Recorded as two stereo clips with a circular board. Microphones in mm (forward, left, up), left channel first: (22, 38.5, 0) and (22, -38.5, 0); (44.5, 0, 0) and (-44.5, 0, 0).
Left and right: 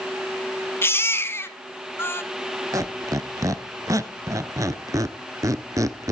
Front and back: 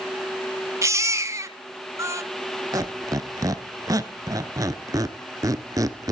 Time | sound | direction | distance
0.8 | a baby crying | 135° left | 1.3 m
2.7 | a squeak | 130° right | 0.8 m